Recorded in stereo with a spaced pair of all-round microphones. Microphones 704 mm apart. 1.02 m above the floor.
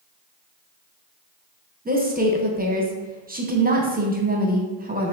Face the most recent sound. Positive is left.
turn(degrees=-15)  # may be behind; listen again after turning